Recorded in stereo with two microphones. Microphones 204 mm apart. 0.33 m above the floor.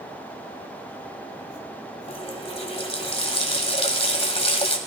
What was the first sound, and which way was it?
A running tap, 30° left (ahead or behind).